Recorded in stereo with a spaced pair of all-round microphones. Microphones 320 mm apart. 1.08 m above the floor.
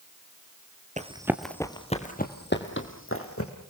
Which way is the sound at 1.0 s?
25° right (ahead or behind).